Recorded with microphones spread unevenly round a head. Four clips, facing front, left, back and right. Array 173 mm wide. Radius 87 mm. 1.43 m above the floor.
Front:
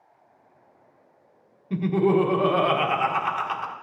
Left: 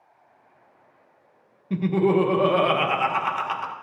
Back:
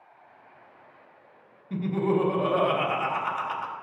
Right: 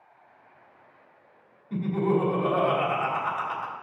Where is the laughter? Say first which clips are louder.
Left 5 dB, front 5 dB; 65° left, 1.5 m.